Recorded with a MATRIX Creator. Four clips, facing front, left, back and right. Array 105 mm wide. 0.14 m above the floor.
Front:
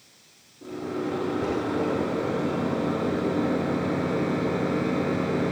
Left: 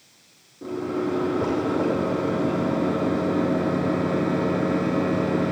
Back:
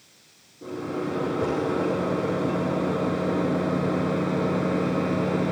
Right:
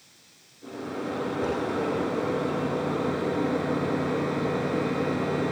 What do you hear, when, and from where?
0.6 s a microwave: 95° left, 4 m